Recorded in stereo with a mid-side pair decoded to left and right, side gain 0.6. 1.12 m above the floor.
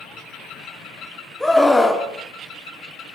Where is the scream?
5° left, 2.5 m.